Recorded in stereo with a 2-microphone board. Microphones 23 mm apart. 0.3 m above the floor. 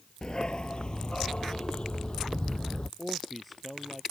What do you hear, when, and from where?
0.2 s a dog barking: 40° left (ahead or behind); by 2.9 s 45° left (ahead or behind)
3.0 s a man speaking: centre (ahead or behind)